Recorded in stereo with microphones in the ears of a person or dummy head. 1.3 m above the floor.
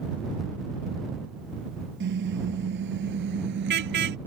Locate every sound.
2.0 s a car horn: 60° right (ahead or behind); by 4.2 s 55° right (ahead or behind)